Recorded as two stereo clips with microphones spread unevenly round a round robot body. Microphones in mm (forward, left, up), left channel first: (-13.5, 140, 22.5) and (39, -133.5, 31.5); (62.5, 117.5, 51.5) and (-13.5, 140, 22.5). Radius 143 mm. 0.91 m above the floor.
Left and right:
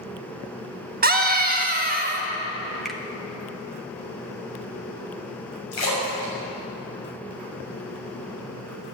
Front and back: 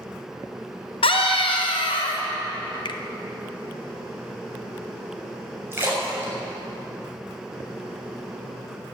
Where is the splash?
105° left, 7.5 m.